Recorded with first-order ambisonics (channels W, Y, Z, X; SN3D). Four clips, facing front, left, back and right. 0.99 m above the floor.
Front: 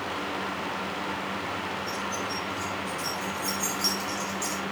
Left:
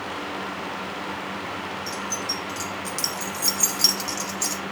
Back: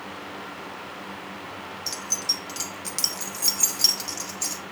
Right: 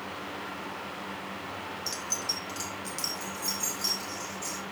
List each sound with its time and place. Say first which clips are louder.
1.9 s keys jangling: left 2 dB, back 2 dB; 165° right, 1.0 m; by 4.6 s 115° left, 1.3 m